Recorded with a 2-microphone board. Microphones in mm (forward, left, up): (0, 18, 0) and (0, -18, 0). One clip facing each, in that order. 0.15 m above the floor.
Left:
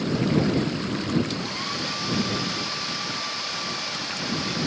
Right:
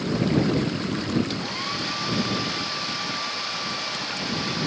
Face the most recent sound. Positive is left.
turn(degrees=-10)  # may be behind; listen again after turning